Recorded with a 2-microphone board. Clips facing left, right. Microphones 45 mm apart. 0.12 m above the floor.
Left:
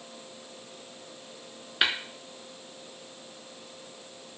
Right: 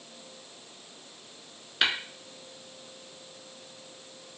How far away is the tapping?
About 0.8 m.